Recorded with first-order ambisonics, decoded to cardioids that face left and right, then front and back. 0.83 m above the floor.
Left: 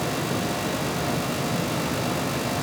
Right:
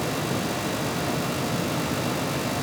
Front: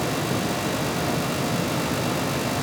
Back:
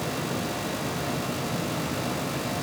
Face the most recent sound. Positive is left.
No sound to turn to.